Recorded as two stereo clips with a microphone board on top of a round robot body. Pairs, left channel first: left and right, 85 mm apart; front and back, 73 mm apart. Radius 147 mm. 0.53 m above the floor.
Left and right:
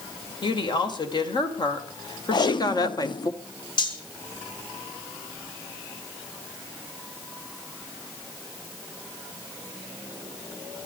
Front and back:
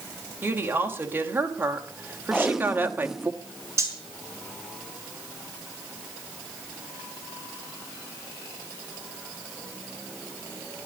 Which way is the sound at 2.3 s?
95° left.